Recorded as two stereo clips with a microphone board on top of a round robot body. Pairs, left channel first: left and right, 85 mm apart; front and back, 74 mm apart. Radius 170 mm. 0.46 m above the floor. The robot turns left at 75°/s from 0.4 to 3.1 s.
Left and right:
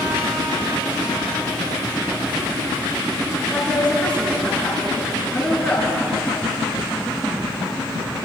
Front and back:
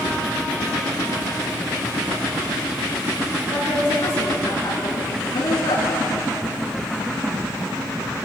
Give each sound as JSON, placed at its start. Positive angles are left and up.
{"t": 3.5, "sound": "a woman speaking", "azimuth_deg": 15, "distance_m": 9.5}